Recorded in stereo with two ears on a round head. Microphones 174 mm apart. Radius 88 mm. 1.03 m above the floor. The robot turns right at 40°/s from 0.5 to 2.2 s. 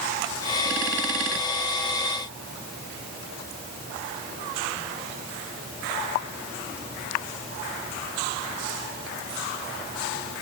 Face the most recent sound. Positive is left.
No sound to turn to.